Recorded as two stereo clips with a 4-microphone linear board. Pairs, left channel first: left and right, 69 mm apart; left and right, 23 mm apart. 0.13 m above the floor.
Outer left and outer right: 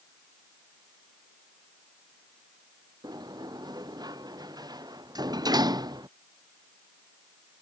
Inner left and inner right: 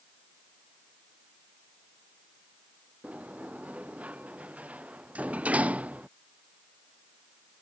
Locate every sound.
3.0 s a sliding door: 70° right (ahead or behind)